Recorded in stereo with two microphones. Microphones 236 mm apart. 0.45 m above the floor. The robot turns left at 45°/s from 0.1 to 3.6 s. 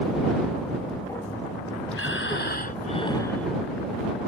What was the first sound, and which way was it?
Breathing, 75° left.